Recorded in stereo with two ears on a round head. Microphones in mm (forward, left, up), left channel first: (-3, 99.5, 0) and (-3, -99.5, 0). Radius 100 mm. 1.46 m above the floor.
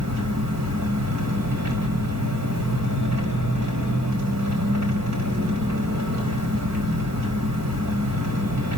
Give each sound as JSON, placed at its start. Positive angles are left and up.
{"t": 0.0, "sound": "an engine running", "side_deg": -80, "distance_m": 5.5}